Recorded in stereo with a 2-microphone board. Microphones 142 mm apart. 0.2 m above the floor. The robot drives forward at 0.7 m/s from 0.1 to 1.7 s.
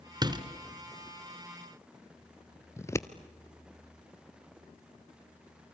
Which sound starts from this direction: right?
A door slam, at 0.2 s.